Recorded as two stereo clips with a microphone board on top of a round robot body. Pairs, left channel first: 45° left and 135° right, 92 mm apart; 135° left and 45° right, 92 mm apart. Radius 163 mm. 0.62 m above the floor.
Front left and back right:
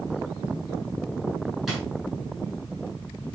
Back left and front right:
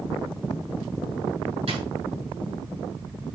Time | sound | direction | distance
1.7 | a drawer | 45° right | 5 m